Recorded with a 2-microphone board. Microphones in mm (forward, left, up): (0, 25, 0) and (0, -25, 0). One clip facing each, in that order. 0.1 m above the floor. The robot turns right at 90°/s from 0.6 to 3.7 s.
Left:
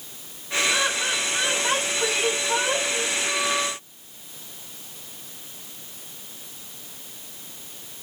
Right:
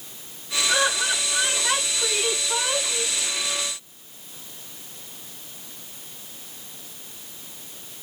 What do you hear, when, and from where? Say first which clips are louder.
0.7 s laughter: right 4 dB; 60° right, 5 m; by 3.1 s 160° left, 5 m